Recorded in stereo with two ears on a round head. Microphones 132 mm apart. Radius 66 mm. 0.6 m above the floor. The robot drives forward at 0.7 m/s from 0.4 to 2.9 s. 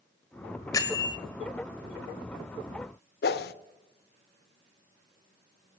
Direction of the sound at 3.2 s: 75° left (ahead or behind).